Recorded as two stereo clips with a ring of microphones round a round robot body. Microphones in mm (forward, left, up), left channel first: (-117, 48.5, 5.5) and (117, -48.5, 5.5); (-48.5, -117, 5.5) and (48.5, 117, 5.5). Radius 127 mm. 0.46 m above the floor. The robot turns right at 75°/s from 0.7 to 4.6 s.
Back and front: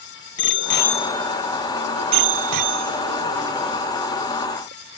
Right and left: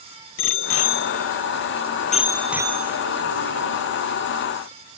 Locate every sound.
0.4 s a bicycle bell: 155° right; by 3.8 s 80° left